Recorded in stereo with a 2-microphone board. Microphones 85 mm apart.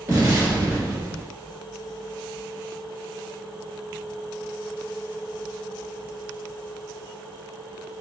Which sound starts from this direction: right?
An explosion, at 0.1 s.